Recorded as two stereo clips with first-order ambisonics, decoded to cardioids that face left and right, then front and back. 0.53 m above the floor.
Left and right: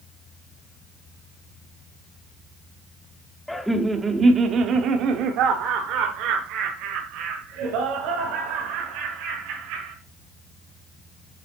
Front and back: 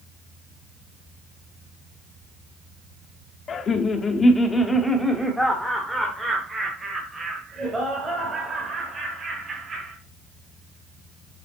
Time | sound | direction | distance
3.5 | laughter | 10° left | 0.9 m